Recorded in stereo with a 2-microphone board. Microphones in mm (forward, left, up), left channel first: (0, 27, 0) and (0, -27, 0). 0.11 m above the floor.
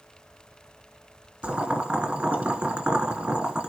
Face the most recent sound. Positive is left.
turn(degrees=-25)  # may be behind; listen again after turning